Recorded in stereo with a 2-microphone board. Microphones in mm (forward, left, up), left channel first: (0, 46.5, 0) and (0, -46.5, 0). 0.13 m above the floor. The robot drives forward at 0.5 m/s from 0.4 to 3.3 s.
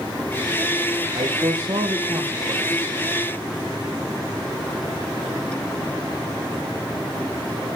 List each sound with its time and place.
1.1 s a man speaking: 50° right (ahead or behind), 6 m; by 2.8 s 45° right (ahead or behind), 6.5 m